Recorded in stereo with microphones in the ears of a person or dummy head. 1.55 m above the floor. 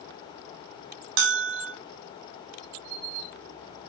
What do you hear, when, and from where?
1.2 s a bell: 75° right (ahead or behind), 1.6 m